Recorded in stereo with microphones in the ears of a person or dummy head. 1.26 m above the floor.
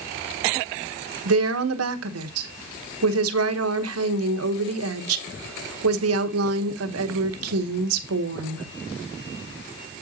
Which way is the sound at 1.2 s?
85° right.